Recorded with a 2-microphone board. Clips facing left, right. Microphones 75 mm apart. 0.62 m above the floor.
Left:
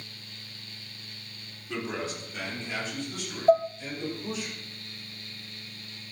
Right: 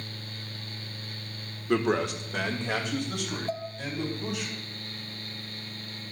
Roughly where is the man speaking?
Right.